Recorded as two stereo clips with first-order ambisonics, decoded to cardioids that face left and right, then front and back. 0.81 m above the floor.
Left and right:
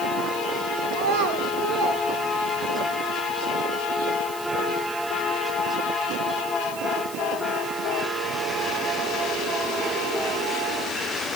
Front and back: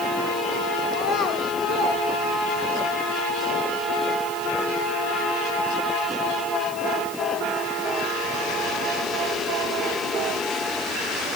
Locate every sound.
0.9 s a child speaking: 55° right, 2 m